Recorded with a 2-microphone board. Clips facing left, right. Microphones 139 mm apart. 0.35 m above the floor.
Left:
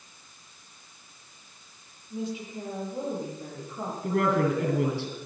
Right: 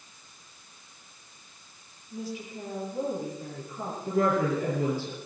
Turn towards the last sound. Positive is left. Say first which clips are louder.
# left 1 dB
turn(degrees=70)  # may be behind; listen again after turning